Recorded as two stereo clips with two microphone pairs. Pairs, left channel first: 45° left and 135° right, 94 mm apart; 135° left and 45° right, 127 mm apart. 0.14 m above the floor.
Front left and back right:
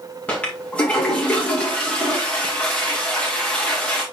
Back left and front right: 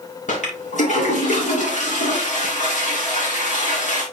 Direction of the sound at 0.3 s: 120° left.